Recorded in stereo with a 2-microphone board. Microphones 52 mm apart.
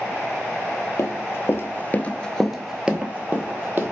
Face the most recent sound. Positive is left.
turn(degrees=-40)  # may be behind; listen again after turning